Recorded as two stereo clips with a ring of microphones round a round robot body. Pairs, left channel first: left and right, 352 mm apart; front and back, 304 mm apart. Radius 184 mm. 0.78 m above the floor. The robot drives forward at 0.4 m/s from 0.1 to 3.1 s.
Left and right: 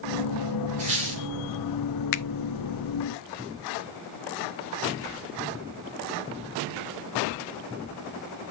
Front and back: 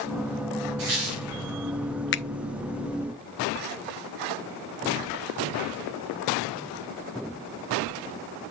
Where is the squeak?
160° right, 3.5 m.